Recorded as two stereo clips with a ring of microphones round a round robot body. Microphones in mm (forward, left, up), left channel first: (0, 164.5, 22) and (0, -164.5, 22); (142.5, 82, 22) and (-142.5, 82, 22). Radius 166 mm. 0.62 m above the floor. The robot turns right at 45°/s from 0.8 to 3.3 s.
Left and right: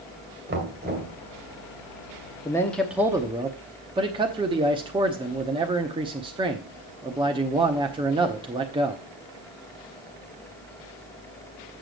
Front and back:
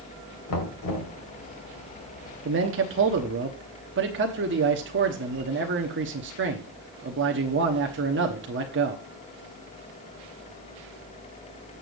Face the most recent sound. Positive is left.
turn(degrees=-160)